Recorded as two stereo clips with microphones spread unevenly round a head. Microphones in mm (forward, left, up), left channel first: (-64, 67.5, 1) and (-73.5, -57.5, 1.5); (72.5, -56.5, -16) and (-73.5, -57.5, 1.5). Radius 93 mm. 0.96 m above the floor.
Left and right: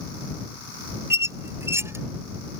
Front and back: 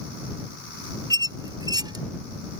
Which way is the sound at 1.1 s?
150° right.